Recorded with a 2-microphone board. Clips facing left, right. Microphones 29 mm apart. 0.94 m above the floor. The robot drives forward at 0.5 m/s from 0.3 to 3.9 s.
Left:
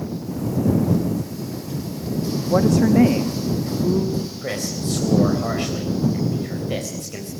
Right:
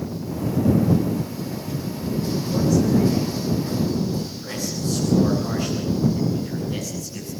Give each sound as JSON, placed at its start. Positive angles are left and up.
{"t": 2.5, "sound": "a woman speaking", "side_deg": 75, "distance_m": 1.1}
{"t": 4.4, "sound": "a man speaking", "side_deg": 65, "distance_m": 4.5}